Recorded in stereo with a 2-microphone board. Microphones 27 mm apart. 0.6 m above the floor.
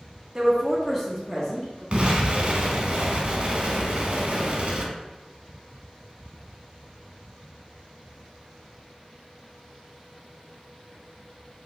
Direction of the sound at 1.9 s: 50° right (ahead or behind).